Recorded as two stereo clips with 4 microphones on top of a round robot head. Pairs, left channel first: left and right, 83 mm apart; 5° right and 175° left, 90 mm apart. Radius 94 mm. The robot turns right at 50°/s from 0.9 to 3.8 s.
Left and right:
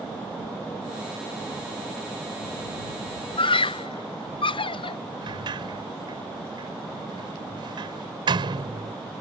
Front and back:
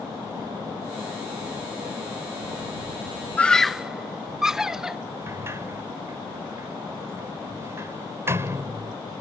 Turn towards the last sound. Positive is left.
turn(degrees=-115)